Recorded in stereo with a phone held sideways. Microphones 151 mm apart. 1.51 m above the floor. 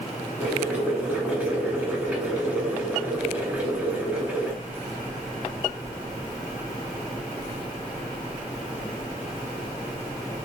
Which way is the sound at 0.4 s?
10° right (ahead or behind).